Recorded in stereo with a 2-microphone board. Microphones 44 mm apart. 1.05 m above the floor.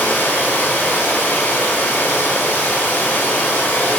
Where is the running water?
55° left (ahead or behind), 1.7 m.